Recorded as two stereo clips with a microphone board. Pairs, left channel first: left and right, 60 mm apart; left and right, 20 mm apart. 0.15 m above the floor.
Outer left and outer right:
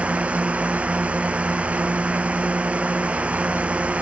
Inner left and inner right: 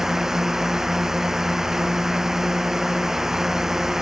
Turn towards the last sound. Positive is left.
turn(degrees=-20)  # may be behind; listen again after turning